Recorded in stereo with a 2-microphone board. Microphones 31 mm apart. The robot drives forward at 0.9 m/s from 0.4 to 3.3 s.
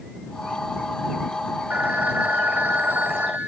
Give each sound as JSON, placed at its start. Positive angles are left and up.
{"t": 1.7, "sound": "a phone ringing", "side_deg": -55}